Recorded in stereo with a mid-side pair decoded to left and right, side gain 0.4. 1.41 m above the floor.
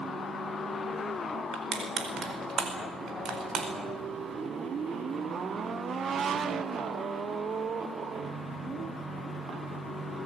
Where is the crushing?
60° right, 5 m.